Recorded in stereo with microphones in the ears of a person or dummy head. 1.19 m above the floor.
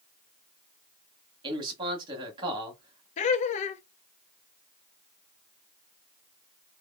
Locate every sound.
1.4 s a man speaking: 25° right (ahead or behind), 1.5 m
3.2 s laughter: 35° left (ahead or behind), 0.5 m